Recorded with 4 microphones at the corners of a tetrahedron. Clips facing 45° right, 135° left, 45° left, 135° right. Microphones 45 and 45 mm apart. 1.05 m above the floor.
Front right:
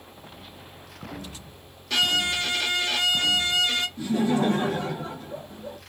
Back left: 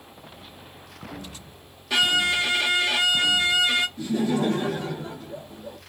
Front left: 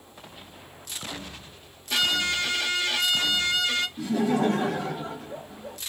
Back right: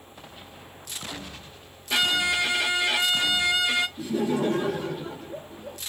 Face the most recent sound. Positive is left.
turn(degrees=20)